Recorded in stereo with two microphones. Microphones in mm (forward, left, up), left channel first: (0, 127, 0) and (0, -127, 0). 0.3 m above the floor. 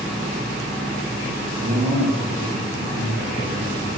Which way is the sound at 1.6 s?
35° right (ahead or behind).